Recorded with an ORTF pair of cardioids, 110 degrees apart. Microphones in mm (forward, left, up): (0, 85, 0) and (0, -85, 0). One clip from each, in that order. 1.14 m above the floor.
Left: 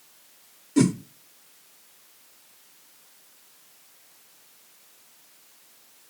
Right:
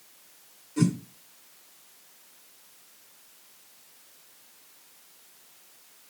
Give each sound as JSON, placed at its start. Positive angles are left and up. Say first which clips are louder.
{"t": 0.8, "sound": "a whoosh", "louder": "left 6 dB", "azimuth_deg": 65, "distance_m": 1.3}